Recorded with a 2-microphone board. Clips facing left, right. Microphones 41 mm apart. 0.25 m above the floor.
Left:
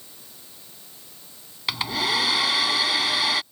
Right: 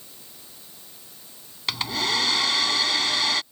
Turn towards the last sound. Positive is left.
turn(degrees=5)  # may be behind; listen again after turning